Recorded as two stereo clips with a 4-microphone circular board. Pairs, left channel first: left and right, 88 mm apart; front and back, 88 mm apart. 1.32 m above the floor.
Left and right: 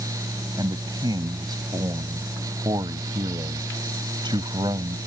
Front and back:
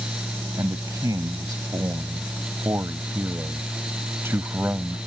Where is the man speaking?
130° right; by 5.0 s 110° right.